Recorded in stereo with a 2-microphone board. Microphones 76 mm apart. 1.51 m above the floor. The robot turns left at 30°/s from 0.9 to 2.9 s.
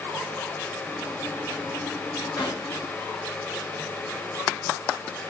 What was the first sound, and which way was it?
A gunshot, 60° left (ahead or behind).